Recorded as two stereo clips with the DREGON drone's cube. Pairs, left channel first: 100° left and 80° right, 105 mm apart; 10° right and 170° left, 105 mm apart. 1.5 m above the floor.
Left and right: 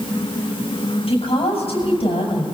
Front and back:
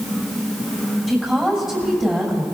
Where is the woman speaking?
80° left, 6.5 m.